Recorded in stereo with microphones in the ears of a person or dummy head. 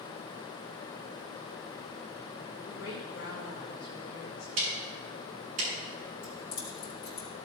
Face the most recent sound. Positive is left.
turn(degrees=55)  # may be behind; listen again after turning